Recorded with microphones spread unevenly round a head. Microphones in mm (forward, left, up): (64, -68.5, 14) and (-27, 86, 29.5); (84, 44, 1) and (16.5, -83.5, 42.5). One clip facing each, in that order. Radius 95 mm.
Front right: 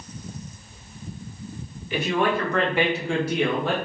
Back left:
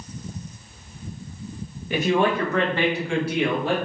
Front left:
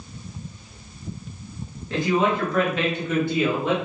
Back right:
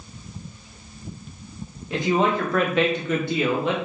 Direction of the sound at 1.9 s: 165° left.